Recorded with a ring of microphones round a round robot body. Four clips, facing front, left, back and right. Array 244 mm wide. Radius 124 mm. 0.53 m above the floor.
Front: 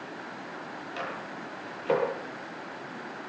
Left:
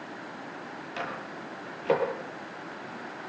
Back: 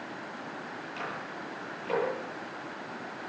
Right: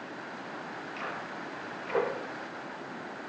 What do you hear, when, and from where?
1.0 s a microwave: 55° left, 9.5 m